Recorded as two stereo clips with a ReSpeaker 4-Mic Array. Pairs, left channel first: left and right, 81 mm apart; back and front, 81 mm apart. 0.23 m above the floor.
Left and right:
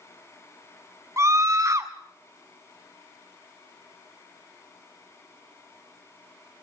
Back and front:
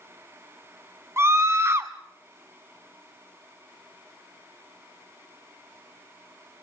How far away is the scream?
About 1.7 m.